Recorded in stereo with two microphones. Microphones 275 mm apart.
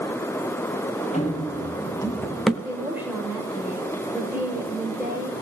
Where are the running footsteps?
25° left (ahead or behind), 3 m; by 2.5 s centre (ahead or behind), 1.9 m.